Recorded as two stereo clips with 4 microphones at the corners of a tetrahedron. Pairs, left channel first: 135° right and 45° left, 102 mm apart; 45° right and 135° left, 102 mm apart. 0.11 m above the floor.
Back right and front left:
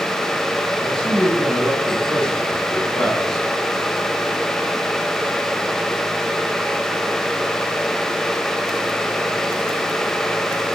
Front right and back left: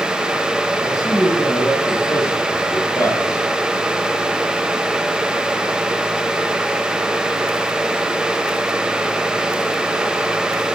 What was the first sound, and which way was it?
A man speaking, 55° right.